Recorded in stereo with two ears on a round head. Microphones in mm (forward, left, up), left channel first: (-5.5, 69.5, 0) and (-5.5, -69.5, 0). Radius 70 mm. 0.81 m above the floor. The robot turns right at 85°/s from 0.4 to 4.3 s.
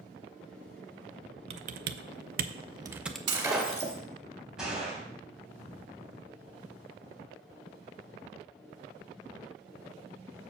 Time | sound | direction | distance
1.5 | typing on a keyboard | 40° right (ahead or behind) | 0.5 m
3.3 | breaking glass | 30° right | 2 m
4.6 | a gunshot | 5° right (ahead or behind) | 3 m